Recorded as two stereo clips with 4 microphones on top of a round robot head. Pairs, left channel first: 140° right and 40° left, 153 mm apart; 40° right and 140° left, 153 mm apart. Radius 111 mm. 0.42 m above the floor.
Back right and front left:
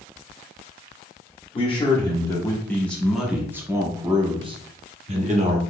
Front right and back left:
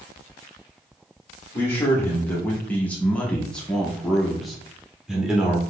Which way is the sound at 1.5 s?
110° right.